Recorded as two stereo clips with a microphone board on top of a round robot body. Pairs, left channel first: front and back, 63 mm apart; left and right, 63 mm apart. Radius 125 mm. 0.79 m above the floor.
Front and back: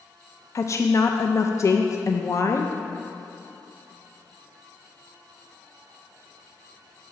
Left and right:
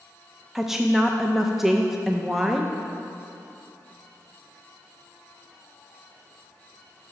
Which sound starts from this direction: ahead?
A woman speaking, at 0.6 s.